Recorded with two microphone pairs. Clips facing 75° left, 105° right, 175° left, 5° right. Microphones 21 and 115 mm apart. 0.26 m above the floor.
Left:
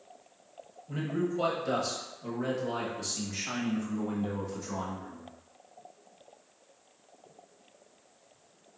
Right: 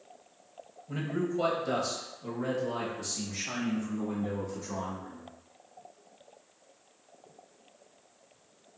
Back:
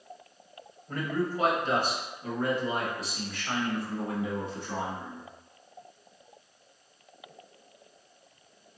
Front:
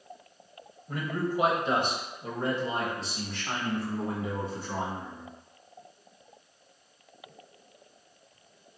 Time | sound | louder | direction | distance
0.9 | a man speaking | even, back 1 dB | 70° right | 1.2 m